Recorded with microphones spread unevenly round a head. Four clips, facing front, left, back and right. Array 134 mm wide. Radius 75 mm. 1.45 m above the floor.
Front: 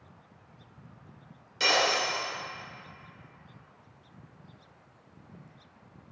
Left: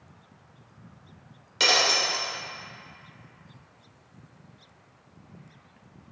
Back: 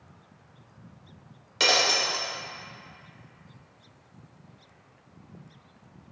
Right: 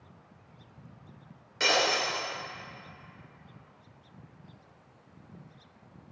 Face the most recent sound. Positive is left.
turn(degrees=180)